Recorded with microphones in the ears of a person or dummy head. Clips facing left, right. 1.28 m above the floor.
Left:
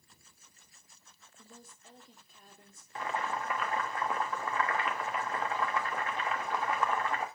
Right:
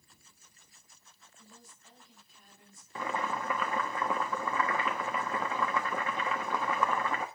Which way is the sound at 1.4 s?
45° left (ahead or behind).